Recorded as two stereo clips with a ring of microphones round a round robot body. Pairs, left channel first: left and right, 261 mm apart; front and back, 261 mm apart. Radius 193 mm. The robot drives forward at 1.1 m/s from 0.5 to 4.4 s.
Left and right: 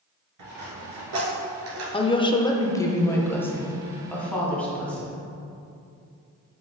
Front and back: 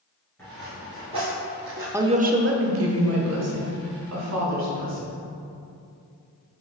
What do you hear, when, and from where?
0.4 s a dropped coin: 85° right, 2 m; by 1.8 s 120° right, 2.5 m
1.9 s a woman speaking: 115° left, 0.8 m; by 5.2 s 175° left, 3 m